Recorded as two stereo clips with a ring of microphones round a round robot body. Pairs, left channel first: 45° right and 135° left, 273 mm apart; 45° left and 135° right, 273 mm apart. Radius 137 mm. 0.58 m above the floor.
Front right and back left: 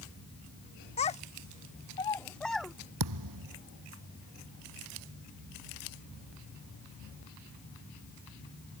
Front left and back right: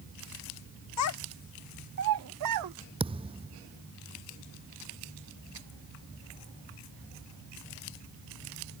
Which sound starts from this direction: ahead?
A child speaking, at 1.0 s.